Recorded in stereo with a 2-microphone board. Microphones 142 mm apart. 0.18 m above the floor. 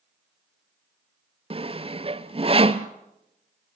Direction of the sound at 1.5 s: 40° right (ahead or behind).